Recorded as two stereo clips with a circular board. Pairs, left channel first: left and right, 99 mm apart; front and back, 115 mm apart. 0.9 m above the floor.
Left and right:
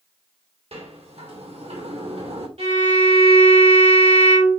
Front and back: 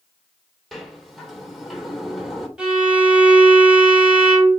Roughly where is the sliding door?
Right.